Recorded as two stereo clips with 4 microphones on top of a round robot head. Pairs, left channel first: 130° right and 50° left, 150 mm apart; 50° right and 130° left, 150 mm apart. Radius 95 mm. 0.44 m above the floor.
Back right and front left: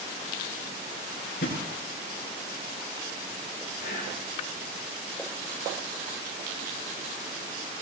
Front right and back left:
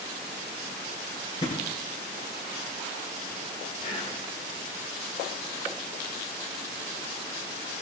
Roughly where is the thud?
Right.